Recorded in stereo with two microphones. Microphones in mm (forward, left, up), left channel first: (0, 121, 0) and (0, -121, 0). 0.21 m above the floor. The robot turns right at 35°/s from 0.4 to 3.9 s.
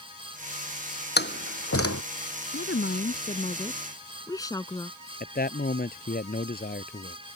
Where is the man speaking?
35° left (ahead or behind).